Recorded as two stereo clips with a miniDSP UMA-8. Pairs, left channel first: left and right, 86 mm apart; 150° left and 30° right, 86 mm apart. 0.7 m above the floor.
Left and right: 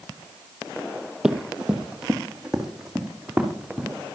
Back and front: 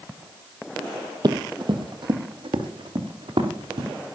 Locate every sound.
1.2 s running footsteps: 5° right, 1.3 m